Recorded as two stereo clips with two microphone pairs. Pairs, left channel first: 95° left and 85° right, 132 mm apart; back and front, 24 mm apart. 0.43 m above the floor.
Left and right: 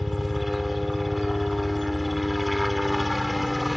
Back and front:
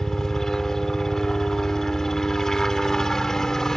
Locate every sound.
0.0 s a helicopter: 175° right